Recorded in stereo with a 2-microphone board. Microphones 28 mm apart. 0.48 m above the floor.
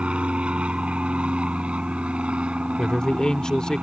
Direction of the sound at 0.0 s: 45° right (ahead or behind).